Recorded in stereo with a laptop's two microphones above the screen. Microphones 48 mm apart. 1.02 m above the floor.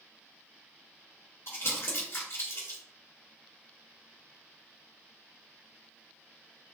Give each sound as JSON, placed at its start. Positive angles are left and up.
{"t": 1.5, "sound": "crumpling", "side_deg": 65, "distance_m": 2.0}